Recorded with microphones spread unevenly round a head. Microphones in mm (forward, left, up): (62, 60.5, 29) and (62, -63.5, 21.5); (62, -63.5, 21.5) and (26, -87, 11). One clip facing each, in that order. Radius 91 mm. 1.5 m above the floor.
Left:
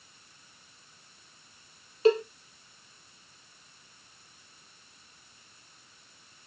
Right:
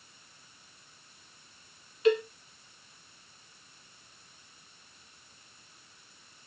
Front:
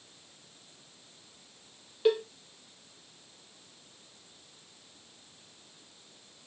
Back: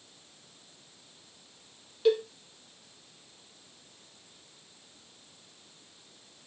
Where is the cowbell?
70° left, 0.5 m.